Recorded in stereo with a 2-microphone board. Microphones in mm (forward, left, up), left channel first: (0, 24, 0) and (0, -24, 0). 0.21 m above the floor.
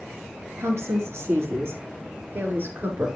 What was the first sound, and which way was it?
A woman speaking, 65° right (ahead or behind).